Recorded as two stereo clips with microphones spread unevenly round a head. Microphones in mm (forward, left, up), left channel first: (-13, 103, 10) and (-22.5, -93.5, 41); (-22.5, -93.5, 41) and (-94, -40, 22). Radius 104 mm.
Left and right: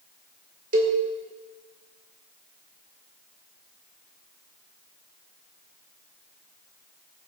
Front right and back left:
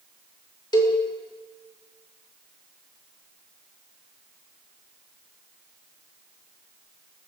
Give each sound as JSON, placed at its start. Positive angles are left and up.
{"t": 0.7, "sound": "a cowbell", "azimuth_deg": -55, "distance_m": 1.8}